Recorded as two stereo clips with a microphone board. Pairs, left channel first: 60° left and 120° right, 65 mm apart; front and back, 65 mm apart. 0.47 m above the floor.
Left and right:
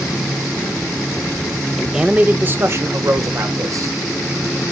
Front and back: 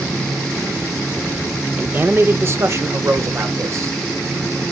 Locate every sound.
1.8 s a man speaking: 155° left, 0.7 m; by 4.0 s 145° right, 1.8 m